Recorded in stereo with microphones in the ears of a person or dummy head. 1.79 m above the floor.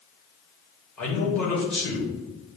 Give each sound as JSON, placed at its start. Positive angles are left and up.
{"t": 1.0, "sound": "a man speaking", "side_deg": 5, "distance_m": 2.5}